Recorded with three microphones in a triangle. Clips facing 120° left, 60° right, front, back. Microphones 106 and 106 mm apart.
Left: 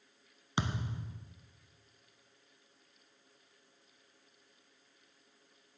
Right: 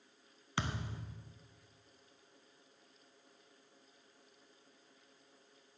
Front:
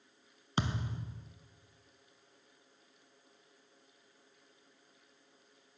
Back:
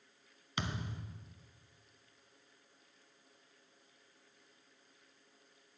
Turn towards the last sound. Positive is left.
turn(degrees=55)